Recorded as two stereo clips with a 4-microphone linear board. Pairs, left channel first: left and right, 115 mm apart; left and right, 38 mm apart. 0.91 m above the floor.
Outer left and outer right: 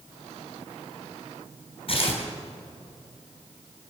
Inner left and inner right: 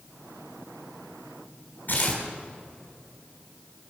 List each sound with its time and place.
1.9 s tearing paper: 55° left (ahead or behind), 3.5 m